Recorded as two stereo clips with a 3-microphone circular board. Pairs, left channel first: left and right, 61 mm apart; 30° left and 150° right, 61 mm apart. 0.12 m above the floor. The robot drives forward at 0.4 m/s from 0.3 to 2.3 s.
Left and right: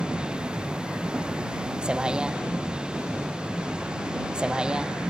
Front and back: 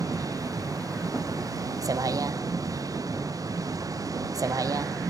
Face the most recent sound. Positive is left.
turn(degrees=-165)